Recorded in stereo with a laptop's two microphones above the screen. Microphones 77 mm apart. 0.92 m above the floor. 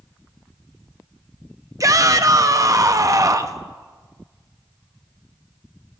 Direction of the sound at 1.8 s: 45° right (ahead or behind).